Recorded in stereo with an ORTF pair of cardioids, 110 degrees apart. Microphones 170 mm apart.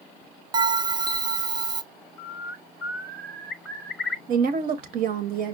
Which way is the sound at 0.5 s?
25° right.